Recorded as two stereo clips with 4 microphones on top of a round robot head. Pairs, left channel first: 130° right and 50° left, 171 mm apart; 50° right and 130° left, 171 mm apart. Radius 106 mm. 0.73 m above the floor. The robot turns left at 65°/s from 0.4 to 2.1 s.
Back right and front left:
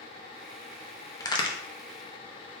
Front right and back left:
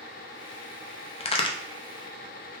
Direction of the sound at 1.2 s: 75° right.